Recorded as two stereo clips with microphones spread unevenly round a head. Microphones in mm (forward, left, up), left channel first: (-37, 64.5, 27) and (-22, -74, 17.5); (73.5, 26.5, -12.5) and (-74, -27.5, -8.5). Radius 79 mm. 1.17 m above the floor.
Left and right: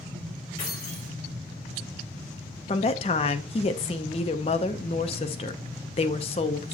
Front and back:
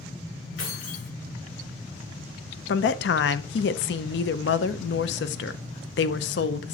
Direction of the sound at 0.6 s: 30° left.